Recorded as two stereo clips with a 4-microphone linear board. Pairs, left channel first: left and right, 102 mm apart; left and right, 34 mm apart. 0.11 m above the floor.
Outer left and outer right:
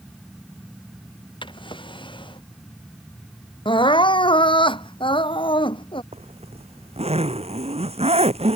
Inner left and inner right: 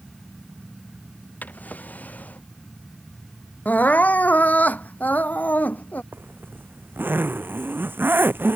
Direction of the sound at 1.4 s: 50° left (ahead or behind).